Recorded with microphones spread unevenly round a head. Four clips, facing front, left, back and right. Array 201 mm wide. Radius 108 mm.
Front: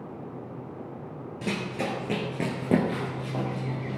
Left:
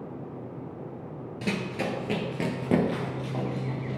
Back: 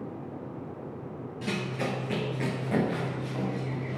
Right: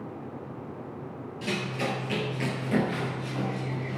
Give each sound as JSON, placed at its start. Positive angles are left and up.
{"t": 1.4, "sound": "running footsteps", "azimuth_deg": 80, "distance_m": 2.0}